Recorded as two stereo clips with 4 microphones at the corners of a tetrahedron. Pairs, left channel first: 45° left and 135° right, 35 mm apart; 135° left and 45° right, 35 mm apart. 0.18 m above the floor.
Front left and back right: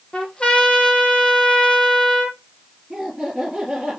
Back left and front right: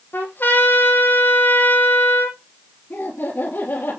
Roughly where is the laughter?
Behind left.